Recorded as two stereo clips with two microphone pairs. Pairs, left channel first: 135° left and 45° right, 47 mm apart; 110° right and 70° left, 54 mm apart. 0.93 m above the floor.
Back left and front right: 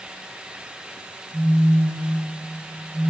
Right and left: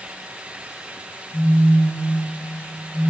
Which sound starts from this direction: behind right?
A phone buzzing, at 1.3 s.